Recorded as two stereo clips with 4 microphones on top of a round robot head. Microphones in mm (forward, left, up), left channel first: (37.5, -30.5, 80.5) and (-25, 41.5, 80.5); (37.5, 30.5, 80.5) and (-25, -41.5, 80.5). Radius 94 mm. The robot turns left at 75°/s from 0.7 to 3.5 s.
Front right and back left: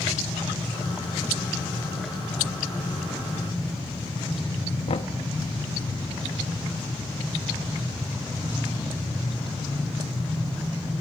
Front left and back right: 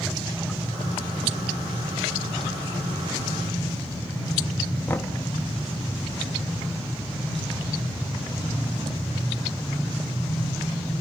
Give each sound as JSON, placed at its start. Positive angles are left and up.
{"t": 4.9, "sound": "knocking", "azimuth_deg": -20, "distance_m": 1.4}